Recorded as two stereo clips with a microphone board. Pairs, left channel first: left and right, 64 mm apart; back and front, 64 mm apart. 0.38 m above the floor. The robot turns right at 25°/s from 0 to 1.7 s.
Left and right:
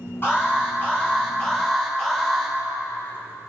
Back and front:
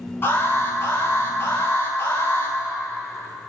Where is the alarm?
135° left, 3 m; by 2.6 s 170° left, 3 m.